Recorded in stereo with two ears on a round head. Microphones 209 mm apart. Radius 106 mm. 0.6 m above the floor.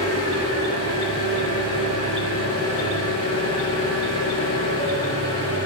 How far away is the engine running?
About 7.5 m.